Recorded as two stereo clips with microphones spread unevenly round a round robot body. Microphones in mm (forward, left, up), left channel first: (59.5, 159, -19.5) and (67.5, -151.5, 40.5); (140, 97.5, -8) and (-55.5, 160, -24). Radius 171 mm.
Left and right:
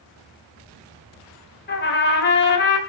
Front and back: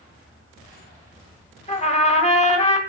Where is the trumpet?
40° left, 2 m.